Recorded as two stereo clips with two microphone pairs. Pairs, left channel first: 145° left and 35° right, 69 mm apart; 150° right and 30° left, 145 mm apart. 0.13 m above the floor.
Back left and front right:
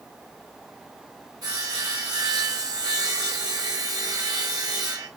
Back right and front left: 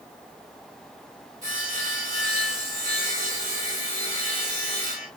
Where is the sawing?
5° right, 5 m.